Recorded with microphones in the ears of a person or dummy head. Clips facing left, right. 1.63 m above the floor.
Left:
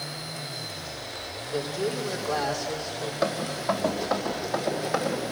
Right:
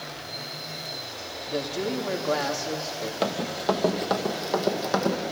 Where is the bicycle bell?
I don't hear a bicycle bell.